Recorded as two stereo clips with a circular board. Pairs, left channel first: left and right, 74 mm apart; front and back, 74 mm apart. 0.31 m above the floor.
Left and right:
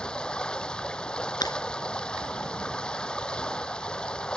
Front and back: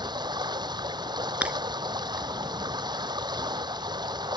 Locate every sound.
0.0 s running water: 170° left
1.4 s breaking glass: 105° left